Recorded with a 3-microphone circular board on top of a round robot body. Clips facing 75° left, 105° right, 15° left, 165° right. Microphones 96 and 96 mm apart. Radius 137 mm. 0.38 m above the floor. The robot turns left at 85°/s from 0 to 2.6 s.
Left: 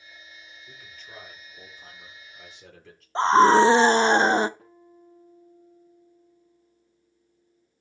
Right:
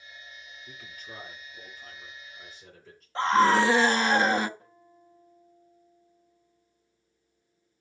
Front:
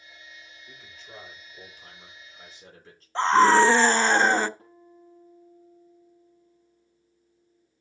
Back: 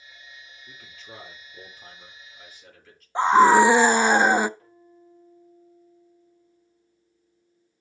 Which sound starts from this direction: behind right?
A man speaking, at 0.7 s.